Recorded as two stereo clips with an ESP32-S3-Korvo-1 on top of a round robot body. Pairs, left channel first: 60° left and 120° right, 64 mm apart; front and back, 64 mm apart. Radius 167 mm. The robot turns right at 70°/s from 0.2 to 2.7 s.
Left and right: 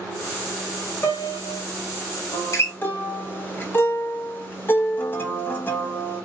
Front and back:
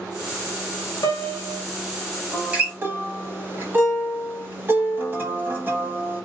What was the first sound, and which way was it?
A piano, 5° left.